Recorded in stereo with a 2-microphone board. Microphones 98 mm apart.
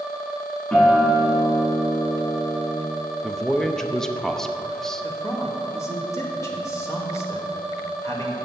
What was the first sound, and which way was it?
A guitar, 20° left (ahead or behind).